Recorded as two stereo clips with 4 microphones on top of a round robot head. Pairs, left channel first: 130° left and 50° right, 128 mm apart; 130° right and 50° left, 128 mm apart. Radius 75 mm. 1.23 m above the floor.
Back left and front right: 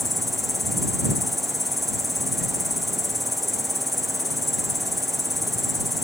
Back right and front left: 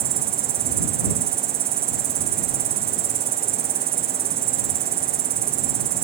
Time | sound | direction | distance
0.0 | an insect | 40° left | ?